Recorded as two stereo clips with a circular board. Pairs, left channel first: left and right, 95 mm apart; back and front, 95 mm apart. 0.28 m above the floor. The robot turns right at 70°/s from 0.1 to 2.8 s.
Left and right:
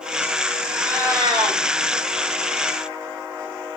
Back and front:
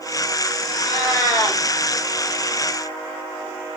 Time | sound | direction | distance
0.7 | a cat meowing | 160° right | 8.5 m